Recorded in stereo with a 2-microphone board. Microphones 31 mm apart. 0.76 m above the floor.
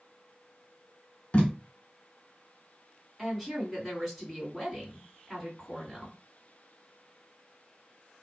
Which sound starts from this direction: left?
Tape being pulled, at 1.3 s.